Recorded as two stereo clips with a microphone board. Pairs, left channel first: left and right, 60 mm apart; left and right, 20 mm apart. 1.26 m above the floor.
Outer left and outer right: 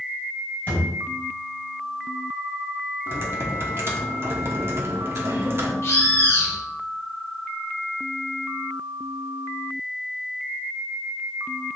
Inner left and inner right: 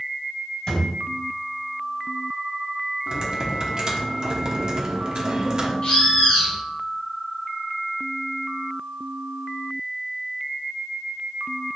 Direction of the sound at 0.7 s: 35° left (ahead or behind).